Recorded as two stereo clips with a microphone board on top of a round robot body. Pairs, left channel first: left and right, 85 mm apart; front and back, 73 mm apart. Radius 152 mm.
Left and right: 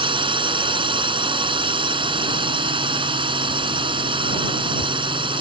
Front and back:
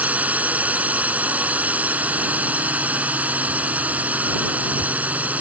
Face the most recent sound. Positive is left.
turn(degrees=-110)